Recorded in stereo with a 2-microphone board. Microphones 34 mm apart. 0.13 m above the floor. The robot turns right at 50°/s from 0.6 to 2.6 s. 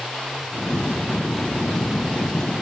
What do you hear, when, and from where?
Only background noise.